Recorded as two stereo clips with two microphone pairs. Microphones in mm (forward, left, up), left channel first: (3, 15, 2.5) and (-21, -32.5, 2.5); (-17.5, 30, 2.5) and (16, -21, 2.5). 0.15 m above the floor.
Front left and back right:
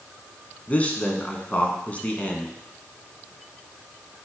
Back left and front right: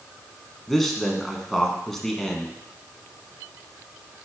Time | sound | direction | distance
0.7 | a man speaking | 40° left | 1.1 m